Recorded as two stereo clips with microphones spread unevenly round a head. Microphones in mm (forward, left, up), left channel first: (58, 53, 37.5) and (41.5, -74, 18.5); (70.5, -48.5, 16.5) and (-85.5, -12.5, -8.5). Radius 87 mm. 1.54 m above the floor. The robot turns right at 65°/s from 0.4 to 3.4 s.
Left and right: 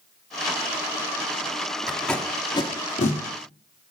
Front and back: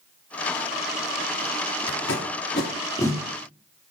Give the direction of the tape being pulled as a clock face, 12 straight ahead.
1 o'clock.